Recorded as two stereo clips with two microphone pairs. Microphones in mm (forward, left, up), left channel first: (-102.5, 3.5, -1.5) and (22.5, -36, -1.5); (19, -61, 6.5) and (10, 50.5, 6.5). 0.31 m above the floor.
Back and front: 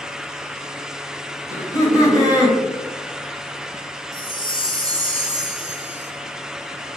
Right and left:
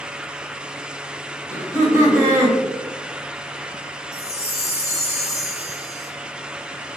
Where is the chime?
50° right, 0.5 m.